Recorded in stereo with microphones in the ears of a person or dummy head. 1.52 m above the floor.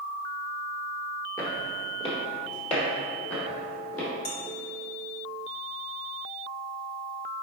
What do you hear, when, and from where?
1.4 s footsteps: 25° left (ahead or behind), 1.8 m; by 4.1 s 50° left (ahead or behind), 3.5 m
4.2 s dishes clattering: 60° left (ahead or behind), 1.1 m